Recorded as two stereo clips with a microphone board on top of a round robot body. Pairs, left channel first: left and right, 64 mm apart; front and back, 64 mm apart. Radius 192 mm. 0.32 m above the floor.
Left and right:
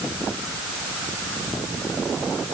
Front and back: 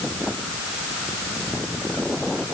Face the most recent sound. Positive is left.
No sound to turn to.